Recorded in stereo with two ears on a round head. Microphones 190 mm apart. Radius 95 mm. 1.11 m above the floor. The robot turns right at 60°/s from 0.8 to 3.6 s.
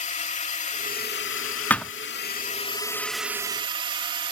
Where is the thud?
10° left (ahead or behind); by 1.9 s centre (ahead or behind).